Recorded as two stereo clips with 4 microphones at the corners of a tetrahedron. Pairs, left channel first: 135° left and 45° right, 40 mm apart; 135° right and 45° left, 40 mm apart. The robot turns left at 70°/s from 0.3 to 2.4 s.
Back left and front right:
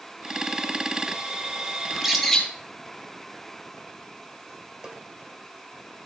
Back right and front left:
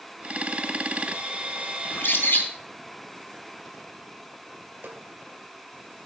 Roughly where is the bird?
Behind right.